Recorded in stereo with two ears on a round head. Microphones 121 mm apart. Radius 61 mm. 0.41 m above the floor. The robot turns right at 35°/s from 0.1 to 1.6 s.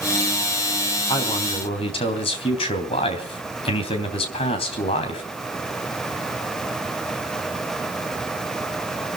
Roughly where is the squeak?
No squeak in this recording.